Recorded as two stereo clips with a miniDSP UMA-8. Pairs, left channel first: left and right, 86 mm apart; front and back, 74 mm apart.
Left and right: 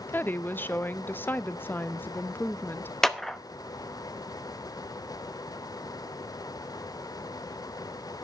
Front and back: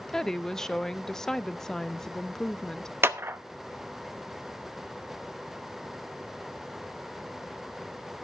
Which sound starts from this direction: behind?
A clap, at 3.0 s.